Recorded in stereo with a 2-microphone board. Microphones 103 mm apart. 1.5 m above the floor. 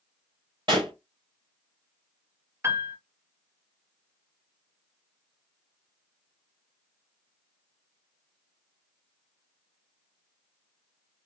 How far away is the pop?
About 2.5 m.